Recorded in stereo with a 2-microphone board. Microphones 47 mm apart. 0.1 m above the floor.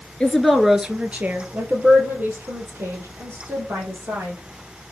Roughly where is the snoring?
I don't hear snoring.